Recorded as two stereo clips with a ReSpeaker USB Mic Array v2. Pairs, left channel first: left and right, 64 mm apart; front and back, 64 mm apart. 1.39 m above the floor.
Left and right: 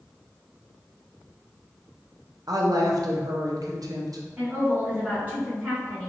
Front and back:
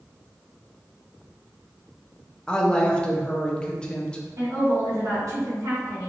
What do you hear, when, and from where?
2.5 s a woman speaking: 75° right, 0.5 m
4.4 s a woman speaking: 155° right, 1.2 m